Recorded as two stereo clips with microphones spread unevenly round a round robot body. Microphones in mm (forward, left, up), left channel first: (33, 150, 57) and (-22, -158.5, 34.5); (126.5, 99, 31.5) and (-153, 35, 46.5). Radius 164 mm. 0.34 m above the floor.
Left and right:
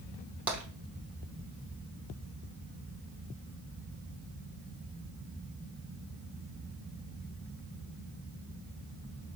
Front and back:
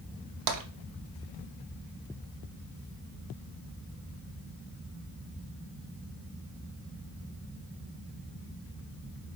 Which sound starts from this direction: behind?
Tapping, at 0.5 s.